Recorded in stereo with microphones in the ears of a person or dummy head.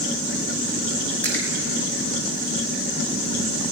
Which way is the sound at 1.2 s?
10° left (ahead or behind).